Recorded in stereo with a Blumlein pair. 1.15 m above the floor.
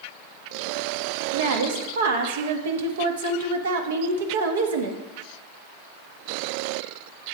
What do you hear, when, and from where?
1.3 s a woman speaking: 60° right, 1.3 m